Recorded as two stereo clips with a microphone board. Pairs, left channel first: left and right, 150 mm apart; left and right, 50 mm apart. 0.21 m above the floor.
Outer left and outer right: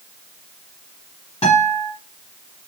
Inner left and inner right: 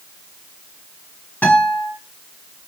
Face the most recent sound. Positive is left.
turn(degrees=40)  # may be behind; listen again after turning